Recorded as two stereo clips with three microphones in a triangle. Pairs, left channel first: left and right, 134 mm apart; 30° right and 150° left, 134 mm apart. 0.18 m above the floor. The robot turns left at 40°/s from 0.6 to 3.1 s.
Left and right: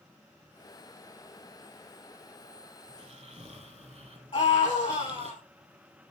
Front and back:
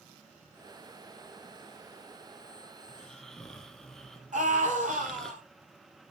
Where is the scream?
140° left, 6 m.